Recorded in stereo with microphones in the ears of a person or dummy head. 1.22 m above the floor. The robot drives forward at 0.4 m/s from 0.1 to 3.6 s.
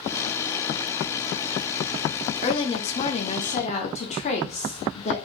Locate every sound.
2.4 s a woman speaking: 30° left (ahead or behind), 0.5 m